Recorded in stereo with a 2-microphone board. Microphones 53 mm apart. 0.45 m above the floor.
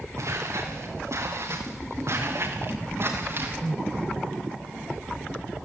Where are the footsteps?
75° right (ahead or behind), 5 m; by 3.6 s 50° right (ahead or behind), 4.5 m.